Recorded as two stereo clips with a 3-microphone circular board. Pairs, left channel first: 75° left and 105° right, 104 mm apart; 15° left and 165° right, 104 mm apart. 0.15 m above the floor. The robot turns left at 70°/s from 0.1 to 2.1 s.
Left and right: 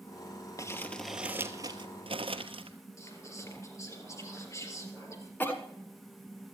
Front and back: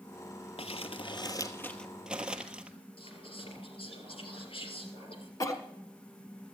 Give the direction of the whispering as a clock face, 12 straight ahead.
11 o'clock.